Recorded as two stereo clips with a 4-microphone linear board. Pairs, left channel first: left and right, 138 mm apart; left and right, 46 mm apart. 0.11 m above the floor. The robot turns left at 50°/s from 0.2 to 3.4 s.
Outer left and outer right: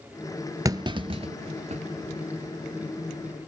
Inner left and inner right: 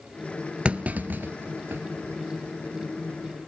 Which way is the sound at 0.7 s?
25° right (ahead or behind).